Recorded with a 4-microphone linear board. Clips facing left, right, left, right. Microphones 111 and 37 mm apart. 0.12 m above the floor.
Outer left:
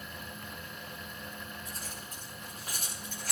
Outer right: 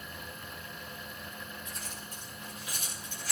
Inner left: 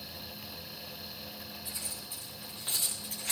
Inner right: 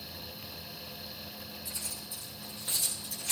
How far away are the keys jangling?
About 9.5 m.